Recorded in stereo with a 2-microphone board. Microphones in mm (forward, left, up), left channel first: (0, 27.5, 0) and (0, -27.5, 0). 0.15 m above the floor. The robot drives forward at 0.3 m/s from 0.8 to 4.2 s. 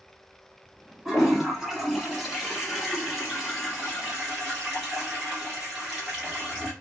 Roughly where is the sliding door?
I don't hear a sliding door.